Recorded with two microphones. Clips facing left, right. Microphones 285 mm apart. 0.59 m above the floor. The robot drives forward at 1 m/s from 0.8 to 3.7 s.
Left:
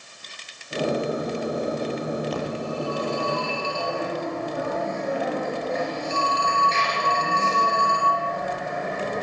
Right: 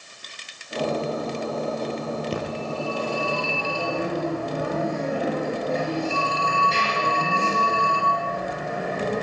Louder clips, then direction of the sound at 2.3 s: Left 1 dB; 30° right (ahead or behind).